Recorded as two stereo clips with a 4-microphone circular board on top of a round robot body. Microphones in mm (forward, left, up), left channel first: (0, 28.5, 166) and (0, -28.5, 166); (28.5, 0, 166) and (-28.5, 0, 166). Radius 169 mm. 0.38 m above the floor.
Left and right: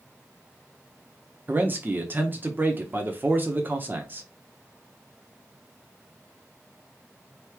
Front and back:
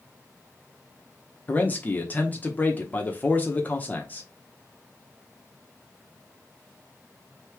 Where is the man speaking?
50° right, 1.0 m.